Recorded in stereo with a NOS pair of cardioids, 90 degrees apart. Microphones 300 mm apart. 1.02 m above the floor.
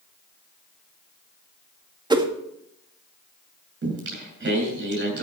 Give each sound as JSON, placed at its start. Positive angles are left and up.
{"t": 2.1, "sound": "a whoosh", "azimuth_deg": -15, "distance_m": 1.9}
{"t": 3.8, "sound": "singing", "azimuth_deg": -35, "distance_m": 8.0}